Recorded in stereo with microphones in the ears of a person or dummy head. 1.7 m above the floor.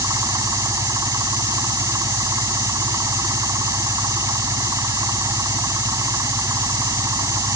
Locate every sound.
0.0 s an engine running: 15° right (ahead or behind)